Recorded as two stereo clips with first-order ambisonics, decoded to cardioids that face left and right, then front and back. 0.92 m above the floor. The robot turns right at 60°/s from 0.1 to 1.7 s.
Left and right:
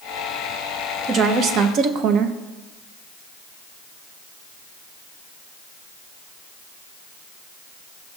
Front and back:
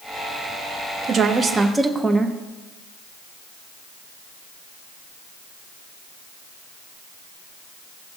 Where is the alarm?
No alarm in this recording.